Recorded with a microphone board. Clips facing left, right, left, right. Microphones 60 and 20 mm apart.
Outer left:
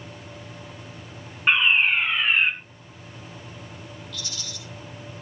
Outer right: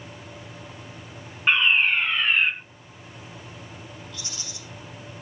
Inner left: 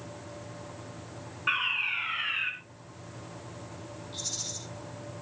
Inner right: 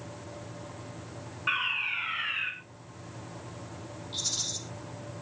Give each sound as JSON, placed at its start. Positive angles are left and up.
{"t": 1.5, "sound": "a fire alarm", "side_deg": 5, "distance_m": 3.0}
{"t": 4.1, "sound": "a rattle", "side_deg": -25, "distance_m": 4.5}